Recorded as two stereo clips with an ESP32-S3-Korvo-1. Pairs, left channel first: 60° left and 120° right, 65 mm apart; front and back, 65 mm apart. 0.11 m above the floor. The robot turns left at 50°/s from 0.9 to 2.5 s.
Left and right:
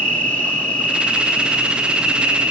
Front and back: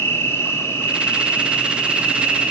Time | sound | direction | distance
0.0 | an insect | 15° left | 1.7 m